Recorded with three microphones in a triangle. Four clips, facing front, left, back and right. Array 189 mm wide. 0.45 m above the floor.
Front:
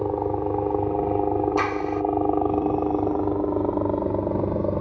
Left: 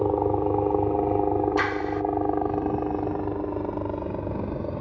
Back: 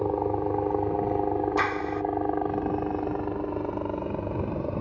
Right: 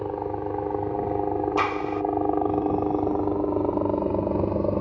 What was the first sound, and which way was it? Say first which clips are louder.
A helicopter: left 6 dB, front 2 dB; 75° left.